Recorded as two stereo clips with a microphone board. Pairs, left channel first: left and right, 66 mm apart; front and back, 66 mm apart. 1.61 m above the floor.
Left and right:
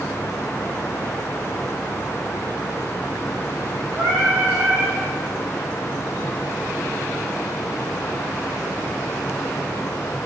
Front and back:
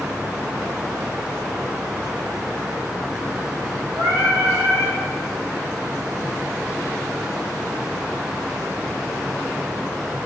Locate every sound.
4.0 s singing: 155° right, 1.7 m